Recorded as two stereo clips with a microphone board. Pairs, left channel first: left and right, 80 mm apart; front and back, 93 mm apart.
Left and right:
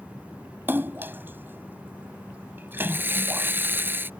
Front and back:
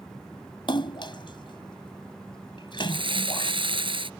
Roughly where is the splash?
Ahead right.